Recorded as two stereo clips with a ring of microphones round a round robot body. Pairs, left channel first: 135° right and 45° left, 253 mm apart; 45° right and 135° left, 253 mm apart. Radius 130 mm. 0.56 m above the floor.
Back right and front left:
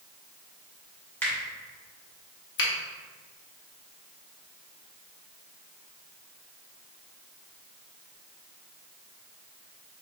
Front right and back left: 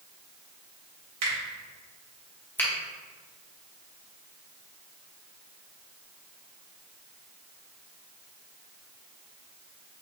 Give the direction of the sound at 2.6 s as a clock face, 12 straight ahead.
4 o'clock.